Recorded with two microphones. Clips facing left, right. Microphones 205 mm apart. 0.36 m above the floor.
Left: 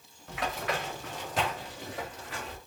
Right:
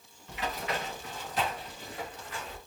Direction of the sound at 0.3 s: 75° left (ahead or behind).